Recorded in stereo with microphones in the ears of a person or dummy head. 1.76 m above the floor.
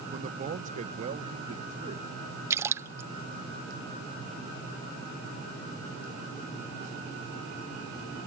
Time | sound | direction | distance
0.1 | a man speaking | 40° right (ahead or behind) | ?
2.5 | a splash | 15° right (ahead or behind) | ?